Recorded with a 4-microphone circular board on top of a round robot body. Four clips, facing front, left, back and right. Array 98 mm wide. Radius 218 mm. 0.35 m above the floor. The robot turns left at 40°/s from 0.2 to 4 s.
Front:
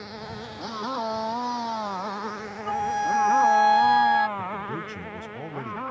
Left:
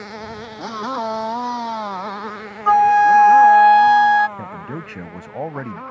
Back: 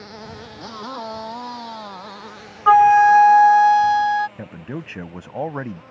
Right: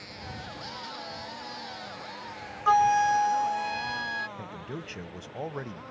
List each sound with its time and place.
0.0 s a motorcycle: 95° left; by 5.9 s 40° left
2.7 s a flute: 155° left; by 4.3 s 100° left
4.4 s a man speaking: 140° left